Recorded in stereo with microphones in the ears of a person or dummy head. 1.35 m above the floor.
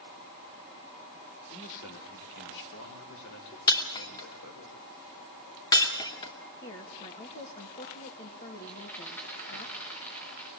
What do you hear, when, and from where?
1.5 s a man speaking: 45° left (ahead or behind), 3 m; by 4.7 s 85° left, 5 m
3.7 s breaking glass: 30° left (ahead or behind), 2.5 m
6.6 s a woman speaking: 40° left (ahead or behind), 2 m
8.7 s a rattle: 10° left (ahead or behind), 4.5 m